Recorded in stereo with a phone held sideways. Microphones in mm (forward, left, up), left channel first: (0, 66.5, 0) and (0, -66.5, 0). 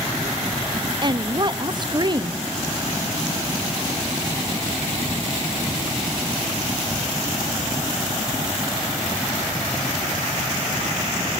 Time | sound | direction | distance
1.0 | a woman speaking | 35° right (ahead or behind) | 0.8 m